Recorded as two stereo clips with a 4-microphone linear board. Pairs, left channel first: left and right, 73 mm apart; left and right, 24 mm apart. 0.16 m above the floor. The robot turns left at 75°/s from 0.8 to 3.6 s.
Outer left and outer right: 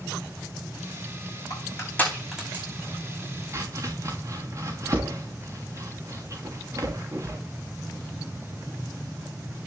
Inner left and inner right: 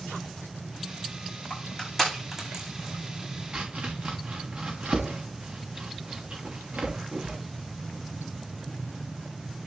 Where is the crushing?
55° left (ahead or behind), 9 m; by 2.6 s 30° right (ahead or behind), 9 m.